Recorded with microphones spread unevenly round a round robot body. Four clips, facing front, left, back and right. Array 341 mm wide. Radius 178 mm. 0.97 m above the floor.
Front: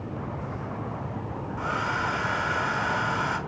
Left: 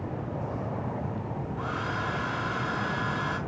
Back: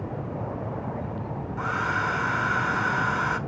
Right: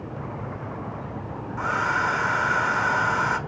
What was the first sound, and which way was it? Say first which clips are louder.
A hair dryer: right 10 dB, back 1 dB; 100° right.